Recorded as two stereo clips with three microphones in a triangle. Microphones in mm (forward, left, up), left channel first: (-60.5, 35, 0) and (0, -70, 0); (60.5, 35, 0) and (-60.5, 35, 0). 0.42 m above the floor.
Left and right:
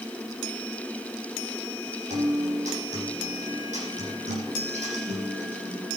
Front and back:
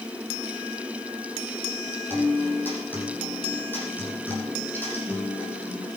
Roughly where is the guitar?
Right.